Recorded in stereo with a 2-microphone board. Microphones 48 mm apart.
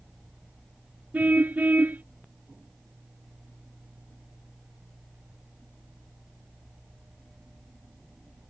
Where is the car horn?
35° right (ahead or behind).